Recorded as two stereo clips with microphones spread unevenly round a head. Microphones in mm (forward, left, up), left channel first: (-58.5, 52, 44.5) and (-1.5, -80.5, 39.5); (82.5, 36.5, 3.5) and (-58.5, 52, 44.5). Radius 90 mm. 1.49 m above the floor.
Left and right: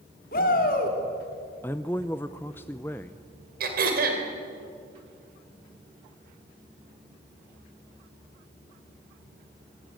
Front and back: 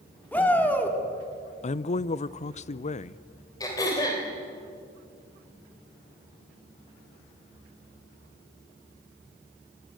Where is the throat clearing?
85° right, 3 m.